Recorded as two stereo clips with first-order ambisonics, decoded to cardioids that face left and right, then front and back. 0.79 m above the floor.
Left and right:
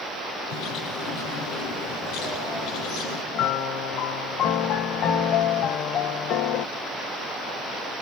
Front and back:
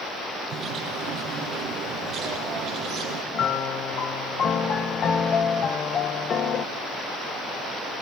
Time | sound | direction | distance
0.5 | a bird | 125° left | 5 m
3.3 | a piano | 60° left | 0.7 m